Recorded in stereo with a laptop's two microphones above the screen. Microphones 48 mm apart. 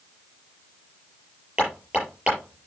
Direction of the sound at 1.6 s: 25° right (ahead or behind).